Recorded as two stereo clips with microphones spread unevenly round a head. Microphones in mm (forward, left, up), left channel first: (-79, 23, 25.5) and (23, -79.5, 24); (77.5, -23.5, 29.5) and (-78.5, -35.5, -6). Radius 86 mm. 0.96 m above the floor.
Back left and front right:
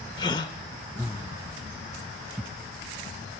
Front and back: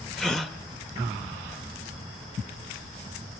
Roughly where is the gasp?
Left.